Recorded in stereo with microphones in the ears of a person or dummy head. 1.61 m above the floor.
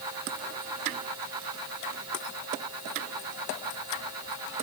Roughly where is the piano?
No piano in this recording.